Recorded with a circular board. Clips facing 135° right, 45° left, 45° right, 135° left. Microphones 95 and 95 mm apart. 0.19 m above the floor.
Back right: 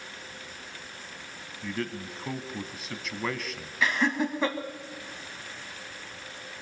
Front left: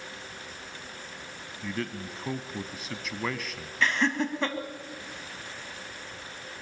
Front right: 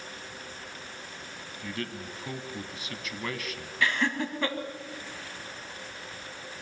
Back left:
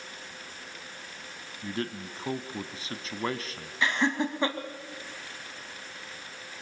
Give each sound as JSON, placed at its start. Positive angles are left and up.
{"t": 1.6, "sound": "a man speaking", "azimuth_deg": 135, "distance_m": 1.2}
{"t": 3.8, "sound": "laughter", "azimuth_deg": 155, "distance_m": 1.4}